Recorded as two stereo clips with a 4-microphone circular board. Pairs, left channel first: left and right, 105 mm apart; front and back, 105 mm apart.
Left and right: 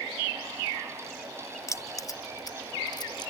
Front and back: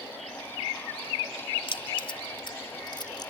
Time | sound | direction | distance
1.7 | keys jangling | 30° left | ?